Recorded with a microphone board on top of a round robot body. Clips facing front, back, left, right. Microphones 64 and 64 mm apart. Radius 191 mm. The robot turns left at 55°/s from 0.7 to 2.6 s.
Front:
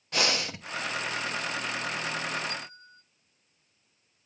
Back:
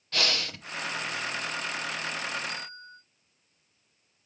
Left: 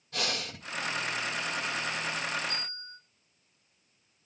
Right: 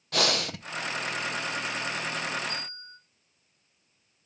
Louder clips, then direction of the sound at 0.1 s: Front 2 dB, right 7 dB; 75° right.